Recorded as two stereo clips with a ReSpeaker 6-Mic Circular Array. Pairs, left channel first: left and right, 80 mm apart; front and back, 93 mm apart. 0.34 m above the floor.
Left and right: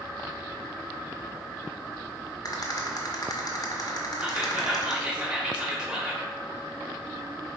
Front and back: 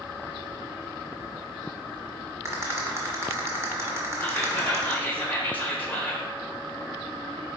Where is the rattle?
125° left, 1.0 m.